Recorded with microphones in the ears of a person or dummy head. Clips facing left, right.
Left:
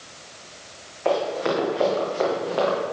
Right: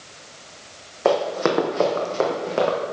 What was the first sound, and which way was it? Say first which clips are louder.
Running footsteps: right 3 dB; 70° right (ahead or behind).